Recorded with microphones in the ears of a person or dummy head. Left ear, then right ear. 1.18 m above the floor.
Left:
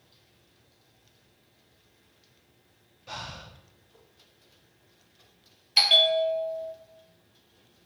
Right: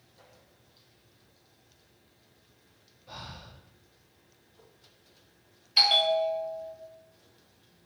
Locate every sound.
3.1 s breathing: 60° left (ahead or behind), 0.9 m
5.8 s a bell: 5° left (ahead or behind), 1.1 m